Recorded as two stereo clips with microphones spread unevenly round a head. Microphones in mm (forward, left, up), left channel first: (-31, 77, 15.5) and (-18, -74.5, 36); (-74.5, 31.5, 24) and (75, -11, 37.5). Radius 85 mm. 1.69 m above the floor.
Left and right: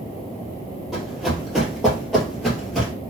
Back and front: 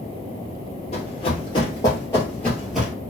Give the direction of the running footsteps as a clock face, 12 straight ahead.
6 o'clock.